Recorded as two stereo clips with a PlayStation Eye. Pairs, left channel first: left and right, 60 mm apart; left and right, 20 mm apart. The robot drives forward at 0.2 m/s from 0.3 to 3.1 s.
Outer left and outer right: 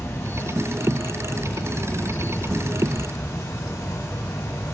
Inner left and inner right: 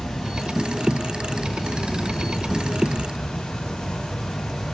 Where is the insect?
55° left (ahead or behind), 1.1 m; by 4.8 s 70° left (ahead or behind), 1.0 m.